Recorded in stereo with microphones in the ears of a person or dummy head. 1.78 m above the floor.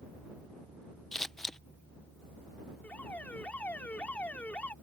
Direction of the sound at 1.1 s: Centre (ahead or behind).